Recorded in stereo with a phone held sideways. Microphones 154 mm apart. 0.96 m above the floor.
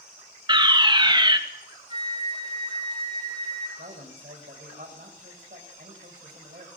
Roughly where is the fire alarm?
Right.